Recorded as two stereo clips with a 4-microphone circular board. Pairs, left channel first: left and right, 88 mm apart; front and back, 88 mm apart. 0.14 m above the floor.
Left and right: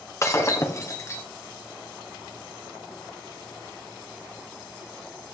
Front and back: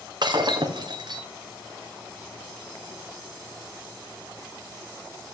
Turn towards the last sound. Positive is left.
turn(degrees=145)